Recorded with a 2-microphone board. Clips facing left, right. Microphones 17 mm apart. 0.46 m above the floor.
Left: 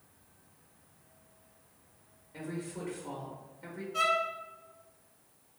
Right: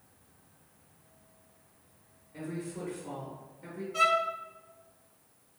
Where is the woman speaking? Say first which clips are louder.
Right 1 dB; 15° left (ahead or behind), 1.0 m.